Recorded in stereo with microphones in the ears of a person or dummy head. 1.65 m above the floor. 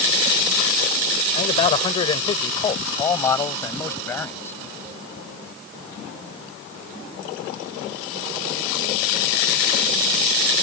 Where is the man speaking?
40° left (ahead or behind); by 4.6 s 15° left (ahead or behind).